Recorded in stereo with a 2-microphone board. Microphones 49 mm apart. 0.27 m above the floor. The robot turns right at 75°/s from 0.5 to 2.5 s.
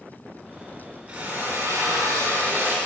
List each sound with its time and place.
1.1 s a drill: 150° right, 3.5 m; by 2.8 s 45° right, 3.5 m